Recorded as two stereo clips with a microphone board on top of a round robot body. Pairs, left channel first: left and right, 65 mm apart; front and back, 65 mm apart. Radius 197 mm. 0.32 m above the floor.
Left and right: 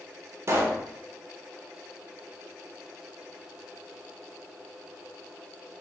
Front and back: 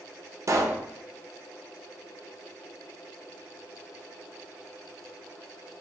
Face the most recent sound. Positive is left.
turn(degrees=-135)